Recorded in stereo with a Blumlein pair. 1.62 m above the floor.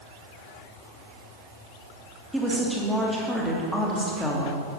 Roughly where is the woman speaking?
Ahead.